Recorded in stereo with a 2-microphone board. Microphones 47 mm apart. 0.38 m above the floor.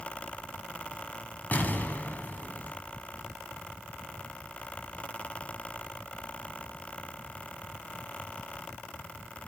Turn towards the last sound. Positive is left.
turn(degrees=35)  # may be behind; listen again after turning